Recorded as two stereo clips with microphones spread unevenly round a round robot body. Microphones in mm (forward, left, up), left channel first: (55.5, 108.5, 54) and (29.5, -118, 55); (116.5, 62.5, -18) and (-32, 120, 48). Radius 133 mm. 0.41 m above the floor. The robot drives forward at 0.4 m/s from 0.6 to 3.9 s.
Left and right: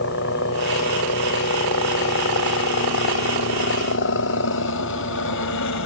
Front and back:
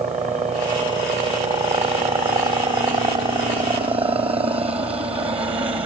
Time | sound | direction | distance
0.0 | a helicopter | 100° left | ?